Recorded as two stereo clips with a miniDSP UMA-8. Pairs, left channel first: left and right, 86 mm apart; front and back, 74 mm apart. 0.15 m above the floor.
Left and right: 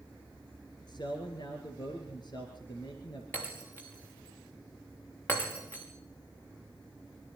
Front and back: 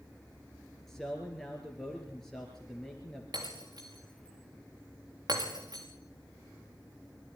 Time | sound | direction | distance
0.9 | a man speaking | 85° left | 3 m
3.3 | breaking glass | 150° left | 5.5 m